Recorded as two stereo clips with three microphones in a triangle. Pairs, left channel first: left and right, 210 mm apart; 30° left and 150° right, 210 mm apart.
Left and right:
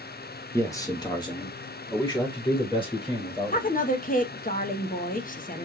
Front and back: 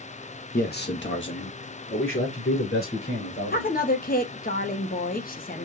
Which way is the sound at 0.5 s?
20° left.